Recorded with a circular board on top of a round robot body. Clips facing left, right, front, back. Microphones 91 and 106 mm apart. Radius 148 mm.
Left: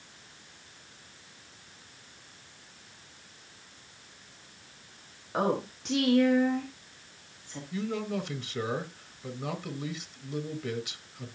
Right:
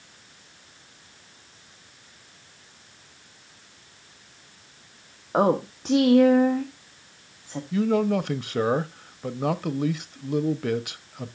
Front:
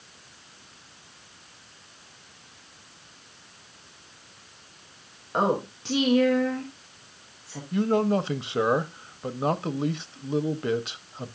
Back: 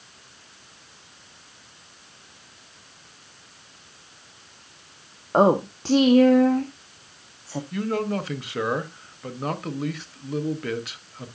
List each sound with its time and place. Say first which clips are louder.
5.3 s a woman speaking: right 7 dB, back 7 dB; 135° right, 1.3 m
7.7 s a man speaking: right 10 dB, front 4 dB; 65° right, 1.0 m